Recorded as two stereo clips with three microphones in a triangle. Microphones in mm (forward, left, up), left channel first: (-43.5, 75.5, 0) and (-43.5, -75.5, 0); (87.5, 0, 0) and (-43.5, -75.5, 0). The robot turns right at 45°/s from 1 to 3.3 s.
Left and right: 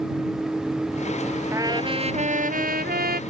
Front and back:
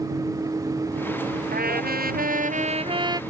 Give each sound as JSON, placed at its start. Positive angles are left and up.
{"t": 1.5, "sound": "a trumpet", "azimuth_deg": -160}